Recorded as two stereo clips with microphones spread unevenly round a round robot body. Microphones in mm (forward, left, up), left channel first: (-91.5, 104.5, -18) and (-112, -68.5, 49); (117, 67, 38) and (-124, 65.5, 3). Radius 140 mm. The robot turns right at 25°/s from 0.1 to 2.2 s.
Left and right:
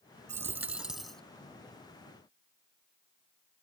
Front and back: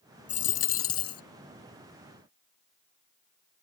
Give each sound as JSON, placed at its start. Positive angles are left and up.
{"t": 0.3, "sound": "a dropped coin", "azimuth_deg": -50}